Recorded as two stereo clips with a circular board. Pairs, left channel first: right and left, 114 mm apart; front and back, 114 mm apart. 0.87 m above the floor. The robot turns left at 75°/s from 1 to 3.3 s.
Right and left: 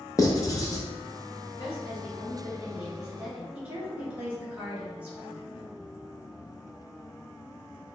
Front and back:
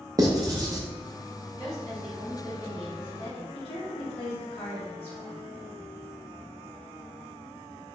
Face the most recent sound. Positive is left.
turn(degrees=15)